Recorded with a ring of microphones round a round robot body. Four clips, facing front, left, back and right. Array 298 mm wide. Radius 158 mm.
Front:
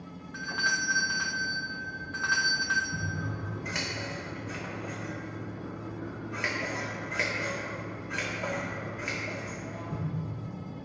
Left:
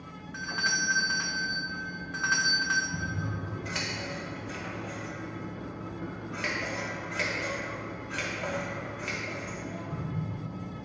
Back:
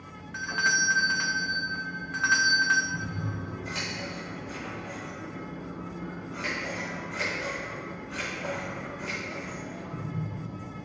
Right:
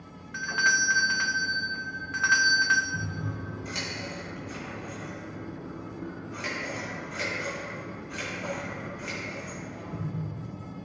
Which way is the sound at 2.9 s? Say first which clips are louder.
Even, back 1 dB; 30° left.